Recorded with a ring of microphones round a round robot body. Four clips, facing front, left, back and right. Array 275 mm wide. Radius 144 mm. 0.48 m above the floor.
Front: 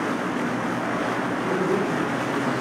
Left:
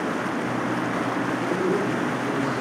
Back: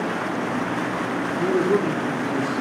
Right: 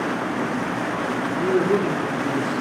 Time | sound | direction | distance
1.4 | a man speaking | 135° right | 6 m